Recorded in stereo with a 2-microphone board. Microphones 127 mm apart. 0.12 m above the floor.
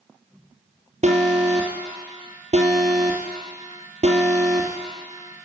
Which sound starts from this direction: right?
An alarm, at 1.0 s.